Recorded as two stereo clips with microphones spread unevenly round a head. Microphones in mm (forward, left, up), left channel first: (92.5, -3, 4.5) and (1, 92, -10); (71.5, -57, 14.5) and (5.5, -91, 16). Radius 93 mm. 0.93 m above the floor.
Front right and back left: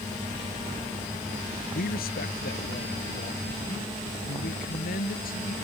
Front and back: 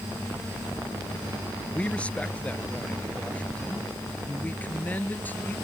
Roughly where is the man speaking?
Ahead right.